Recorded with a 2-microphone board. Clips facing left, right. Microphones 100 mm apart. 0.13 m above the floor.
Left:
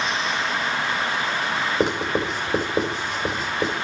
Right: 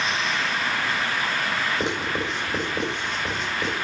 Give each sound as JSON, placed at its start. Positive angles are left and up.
{"t": 1.8, "sound": "writing", "side_deg": 35, "distance_m": 2.5}